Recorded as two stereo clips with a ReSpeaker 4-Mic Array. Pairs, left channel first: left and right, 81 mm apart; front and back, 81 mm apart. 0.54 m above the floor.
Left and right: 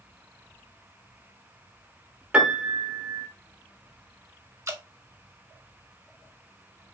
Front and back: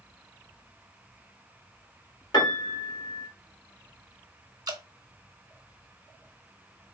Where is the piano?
20° right, 1.4 m.